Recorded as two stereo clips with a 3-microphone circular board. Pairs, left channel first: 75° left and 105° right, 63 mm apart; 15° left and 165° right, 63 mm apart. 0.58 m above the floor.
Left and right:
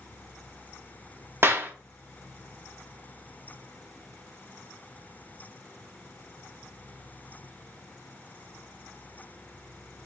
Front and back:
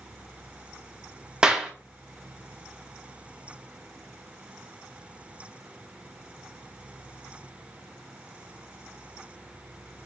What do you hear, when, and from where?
1.4 s a clap: 95° right, 0.6 m